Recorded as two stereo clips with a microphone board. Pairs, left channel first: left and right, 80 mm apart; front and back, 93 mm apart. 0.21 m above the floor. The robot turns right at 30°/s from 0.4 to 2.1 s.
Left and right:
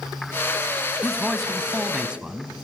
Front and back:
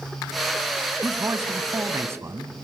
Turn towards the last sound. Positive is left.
turn(degrees=-160)